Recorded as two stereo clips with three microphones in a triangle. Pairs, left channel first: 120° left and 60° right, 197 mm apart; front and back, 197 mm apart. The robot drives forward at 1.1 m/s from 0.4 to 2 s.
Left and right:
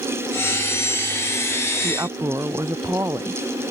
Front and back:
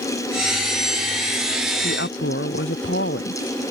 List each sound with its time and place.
1.8 s a woman speaking: 15° left